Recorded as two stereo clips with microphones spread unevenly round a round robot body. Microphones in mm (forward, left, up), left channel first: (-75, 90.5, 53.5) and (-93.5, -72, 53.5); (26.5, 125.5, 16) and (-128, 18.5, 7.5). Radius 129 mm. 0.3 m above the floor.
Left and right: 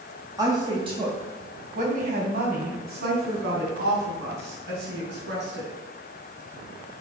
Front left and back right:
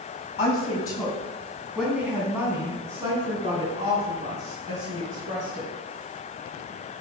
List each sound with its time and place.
0.4 s a woman speaking: 30° right, 2 m; by 5.7 s 85° right, 4.5 m